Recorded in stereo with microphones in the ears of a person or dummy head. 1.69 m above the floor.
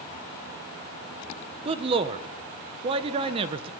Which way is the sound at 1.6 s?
30° right (ahead or behind).